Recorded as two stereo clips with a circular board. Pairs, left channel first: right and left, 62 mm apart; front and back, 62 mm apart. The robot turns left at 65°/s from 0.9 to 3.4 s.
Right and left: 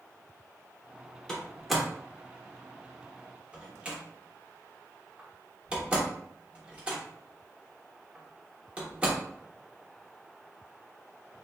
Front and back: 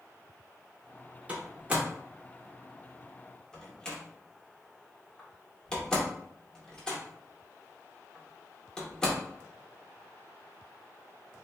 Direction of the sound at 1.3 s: 165° right.